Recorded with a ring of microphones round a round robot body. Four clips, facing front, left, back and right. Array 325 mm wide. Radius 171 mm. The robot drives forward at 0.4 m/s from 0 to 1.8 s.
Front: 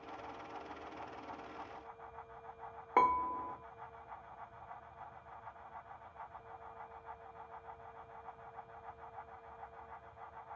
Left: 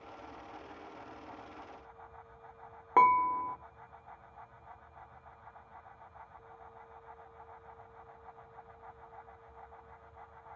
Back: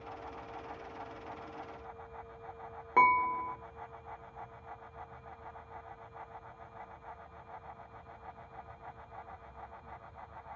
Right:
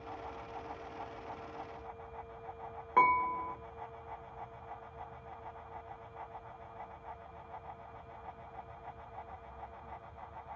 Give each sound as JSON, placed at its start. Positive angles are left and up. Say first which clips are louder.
{"t": 3.0, "sound": "dishes clattering", "louder": "left 3 dB, back 5 dB", "azimuth_deg": 105, "distance_m": 0.7}